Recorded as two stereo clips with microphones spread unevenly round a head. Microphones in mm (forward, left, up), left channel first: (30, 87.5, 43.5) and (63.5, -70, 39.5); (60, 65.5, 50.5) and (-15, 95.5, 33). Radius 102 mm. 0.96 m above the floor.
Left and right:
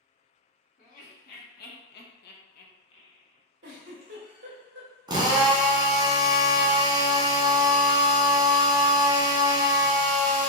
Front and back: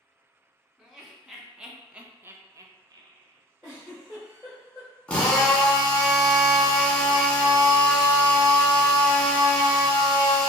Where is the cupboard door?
No cupboard door in this recording.